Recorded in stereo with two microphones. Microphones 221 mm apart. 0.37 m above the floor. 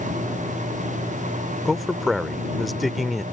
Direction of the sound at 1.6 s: Centre (ahead or behind).